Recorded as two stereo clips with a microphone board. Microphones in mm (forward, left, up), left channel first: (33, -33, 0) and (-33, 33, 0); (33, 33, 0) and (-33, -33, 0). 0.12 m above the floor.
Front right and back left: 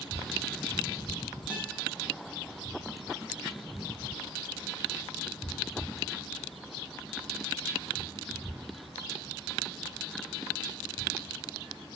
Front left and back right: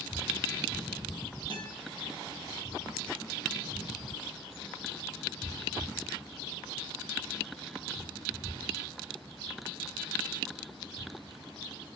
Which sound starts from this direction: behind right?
A guitar, at 1.5 s.